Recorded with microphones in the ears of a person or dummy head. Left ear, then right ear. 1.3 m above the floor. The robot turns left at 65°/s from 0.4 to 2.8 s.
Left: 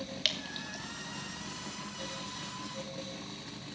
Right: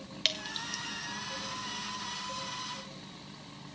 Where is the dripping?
15° right (ahead or behind), 1.1 m; by 0.8 s 45° right (ahead or behind), 1.1 m.